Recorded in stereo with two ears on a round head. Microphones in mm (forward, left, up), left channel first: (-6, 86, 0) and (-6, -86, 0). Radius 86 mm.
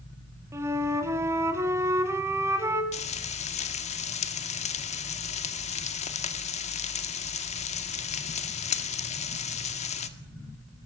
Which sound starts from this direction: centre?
A flute, at 0.5 s.